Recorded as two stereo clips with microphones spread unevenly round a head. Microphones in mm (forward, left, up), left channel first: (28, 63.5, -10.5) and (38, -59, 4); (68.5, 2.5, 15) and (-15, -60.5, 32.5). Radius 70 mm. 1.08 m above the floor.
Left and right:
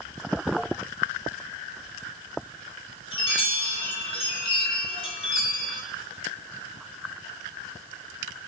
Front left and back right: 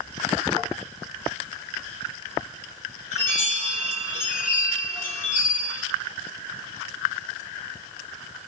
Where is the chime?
50° left, 4.5 m.